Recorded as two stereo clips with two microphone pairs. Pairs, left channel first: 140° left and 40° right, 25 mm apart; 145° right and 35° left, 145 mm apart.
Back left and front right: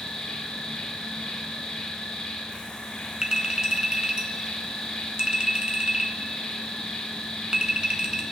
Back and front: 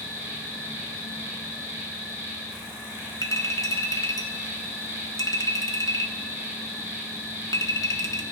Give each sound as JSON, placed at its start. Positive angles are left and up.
{"t": 0.0, "sound": "an insect", "azimuth_deg": 105, "distance_m": 3.5}
{"t": 3.2, "sound": "a clink", "azimuth_deg": -85, "distance_m": 1.0}